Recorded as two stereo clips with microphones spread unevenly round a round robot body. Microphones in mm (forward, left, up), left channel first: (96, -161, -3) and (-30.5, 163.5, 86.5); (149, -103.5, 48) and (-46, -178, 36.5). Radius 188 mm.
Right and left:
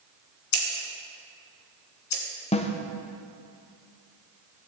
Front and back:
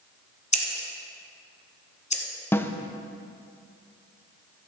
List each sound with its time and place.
0.5 s scissors: 35° right, 1.8 m
2.5 s a snare drum: 55° right, 0.7 m